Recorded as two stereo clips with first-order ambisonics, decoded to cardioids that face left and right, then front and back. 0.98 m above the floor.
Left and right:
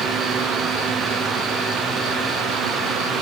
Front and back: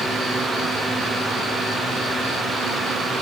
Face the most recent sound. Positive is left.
No sound to turn to.